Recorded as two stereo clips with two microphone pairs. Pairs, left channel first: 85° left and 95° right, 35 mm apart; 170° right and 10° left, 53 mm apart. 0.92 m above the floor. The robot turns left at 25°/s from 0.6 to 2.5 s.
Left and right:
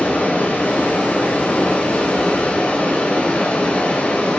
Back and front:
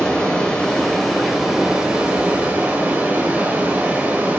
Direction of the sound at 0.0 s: 115° left.